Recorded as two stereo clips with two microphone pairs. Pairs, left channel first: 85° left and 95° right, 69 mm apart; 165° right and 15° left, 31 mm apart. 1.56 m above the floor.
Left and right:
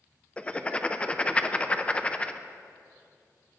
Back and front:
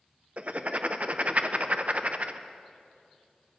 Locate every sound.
0.4 s writing: 20° left, 0.6 m